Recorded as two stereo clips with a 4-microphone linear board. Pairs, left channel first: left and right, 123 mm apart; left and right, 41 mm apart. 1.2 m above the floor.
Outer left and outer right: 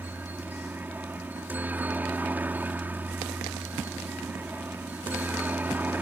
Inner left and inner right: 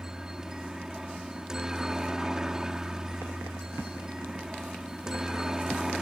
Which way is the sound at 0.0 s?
15° right (ahead or behind).